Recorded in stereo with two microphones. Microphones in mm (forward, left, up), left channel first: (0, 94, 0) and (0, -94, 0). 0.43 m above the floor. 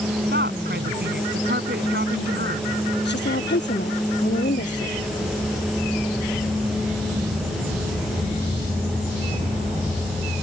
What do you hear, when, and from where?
0.3 s a woman speaking: 65° right (ahead or behind)
3.0 s a woman speaking: 70° left (ahead or behind)